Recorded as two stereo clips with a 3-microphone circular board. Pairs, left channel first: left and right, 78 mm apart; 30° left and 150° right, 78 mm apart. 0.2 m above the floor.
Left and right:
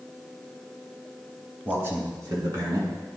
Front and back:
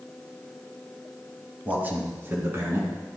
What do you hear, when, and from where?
1.6 s a man speaking: 110° right, 1.7 m; by 2.9 s 100° right, 3 m